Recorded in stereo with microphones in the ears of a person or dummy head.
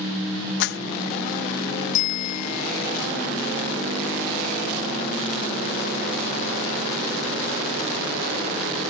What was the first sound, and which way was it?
A clap, 70° left (ahead or behind).